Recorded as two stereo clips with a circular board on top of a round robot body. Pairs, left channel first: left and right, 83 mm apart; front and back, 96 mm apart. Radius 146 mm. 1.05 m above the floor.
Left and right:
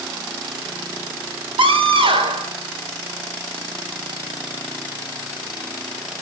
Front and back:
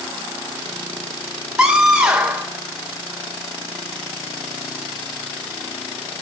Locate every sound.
1.6 s a scream: 100° right, 4.5 m